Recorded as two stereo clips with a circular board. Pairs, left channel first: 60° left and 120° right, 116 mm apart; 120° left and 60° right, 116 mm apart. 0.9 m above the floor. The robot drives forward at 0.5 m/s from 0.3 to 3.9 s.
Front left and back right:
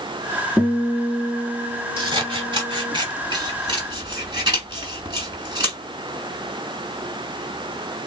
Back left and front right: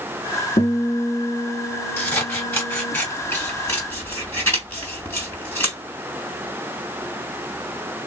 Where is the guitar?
150° left, 2.5 m; by 3.0 s 160° left, 3.5 m.